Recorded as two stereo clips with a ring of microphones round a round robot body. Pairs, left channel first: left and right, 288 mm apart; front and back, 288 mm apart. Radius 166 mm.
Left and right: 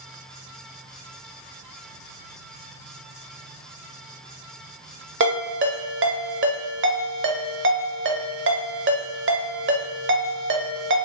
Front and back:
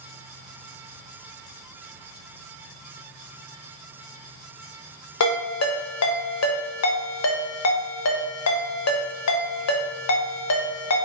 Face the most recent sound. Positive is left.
turn(degrees=-40)